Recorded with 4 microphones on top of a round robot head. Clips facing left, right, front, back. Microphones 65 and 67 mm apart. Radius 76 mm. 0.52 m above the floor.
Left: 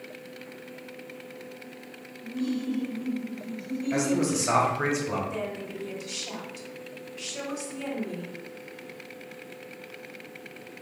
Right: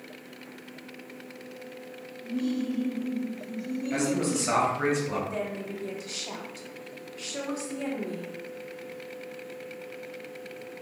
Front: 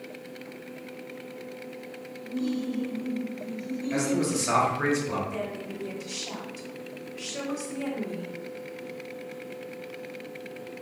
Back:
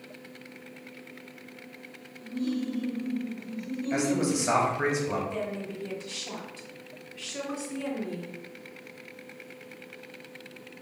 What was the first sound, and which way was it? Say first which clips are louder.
Laughter: even, front 1 dB; 5° right.